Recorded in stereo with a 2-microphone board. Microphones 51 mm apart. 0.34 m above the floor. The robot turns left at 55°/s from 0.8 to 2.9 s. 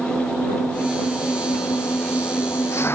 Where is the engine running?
170° left; by 3.0 s 50° left.